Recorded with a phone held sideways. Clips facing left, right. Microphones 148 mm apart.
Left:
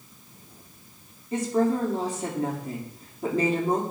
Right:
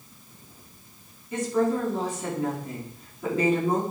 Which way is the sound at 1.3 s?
35° left (ahead or behind).